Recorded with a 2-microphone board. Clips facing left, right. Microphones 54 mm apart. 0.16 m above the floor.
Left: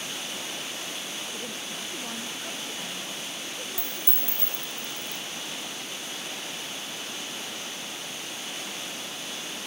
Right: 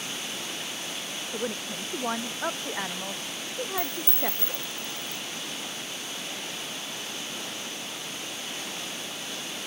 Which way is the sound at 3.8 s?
50° right (ahead or behind).